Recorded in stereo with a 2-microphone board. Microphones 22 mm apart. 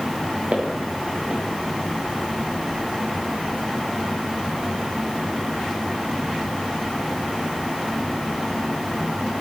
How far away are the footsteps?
About 4.5 m.